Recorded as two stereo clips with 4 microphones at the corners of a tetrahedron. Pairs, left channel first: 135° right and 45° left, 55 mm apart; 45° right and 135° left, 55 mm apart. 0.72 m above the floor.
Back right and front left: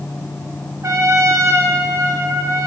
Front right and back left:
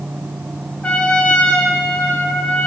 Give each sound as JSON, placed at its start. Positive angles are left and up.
{"t": 0.8, "sound": "a trumpet", "azimuth_deg": 20, "distance_m": 0.6}